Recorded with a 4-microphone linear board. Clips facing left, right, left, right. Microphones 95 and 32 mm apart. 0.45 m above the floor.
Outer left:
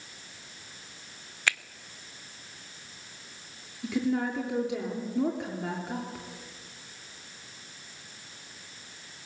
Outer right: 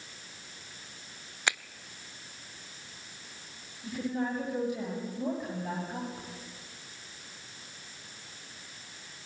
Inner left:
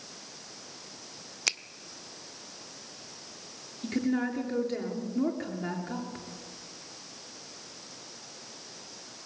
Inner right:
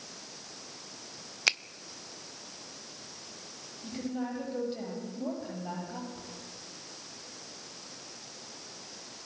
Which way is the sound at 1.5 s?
20° right (ahead or behind).